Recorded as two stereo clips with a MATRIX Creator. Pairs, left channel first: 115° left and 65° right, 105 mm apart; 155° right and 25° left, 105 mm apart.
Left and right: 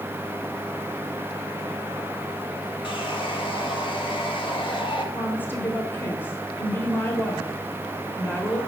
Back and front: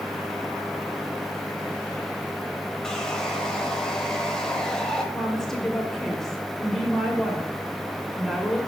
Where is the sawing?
120° left, 0.9 m.